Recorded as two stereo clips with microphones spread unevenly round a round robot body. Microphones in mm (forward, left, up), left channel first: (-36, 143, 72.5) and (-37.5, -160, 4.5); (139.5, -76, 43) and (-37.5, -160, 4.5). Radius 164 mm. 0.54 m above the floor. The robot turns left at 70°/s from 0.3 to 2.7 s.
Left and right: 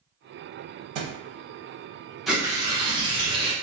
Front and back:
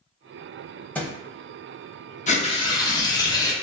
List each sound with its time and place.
0.9 s a thud: 55° right, 0.7 m; by 1.2 s 65° right, 0.7 m
2.3 s tearing paper: 20° right, 0.8 m; by 3.5 s 50° right, 0.8 m